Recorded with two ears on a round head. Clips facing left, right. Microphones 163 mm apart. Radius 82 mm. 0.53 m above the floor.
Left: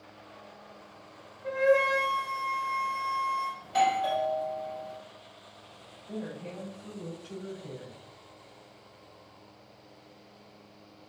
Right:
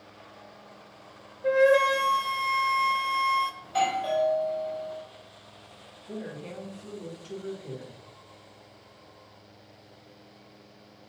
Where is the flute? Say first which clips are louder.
Right 4 dB; 75° right (ahead or behind), 1.8 m.